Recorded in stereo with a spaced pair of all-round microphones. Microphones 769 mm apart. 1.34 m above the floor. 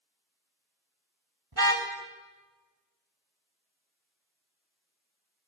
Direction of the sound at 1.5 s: 30° right (ahead or behind).